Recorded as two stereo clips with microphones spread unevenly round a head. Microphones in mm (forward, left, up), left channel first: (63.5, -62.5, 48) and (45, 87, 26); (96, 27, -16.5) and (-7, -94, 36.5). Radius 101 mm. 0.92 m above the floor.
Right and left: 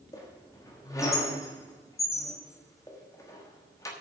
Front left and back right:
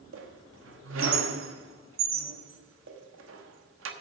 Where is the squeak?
160° right, 1.2 m.